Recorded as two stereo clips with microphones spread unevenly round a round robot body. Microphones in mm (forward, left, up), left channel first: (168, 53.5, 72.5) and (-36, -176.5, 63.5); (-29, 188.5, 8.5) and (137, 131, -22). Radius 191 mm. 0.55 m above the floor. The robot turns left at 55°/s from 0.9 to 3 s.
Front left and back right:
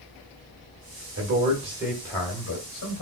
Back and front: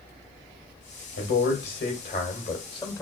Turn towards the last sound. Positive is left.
turn(degrees=80)